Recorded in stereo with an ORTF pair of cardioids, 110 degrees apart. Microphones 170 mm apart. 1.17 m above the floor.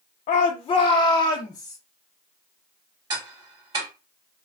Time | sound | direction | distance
0.3 | a shout | 50° left | 0.7 m
3.1 | ticking | 25° right | 2.5 m